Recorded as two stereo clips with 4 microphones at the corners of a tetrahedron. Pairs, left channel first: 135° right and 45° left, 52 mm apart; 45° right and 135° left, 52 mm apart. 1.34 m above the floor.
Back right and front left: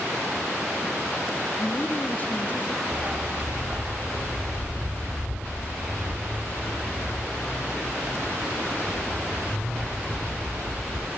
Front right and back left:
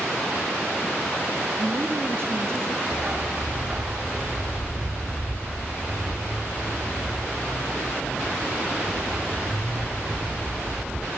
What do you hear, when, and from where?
1.6 s a woman speaking: 175° left, 1.2 m; by 2.8 s 165° left, 1.9 m
2.9 s a dog barking: 100° left, 1.0 m